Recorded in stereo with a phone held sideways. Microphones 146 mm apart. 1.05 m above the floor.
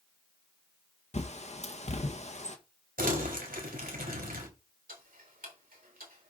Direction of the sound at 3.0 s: 75° right (ahead or behind).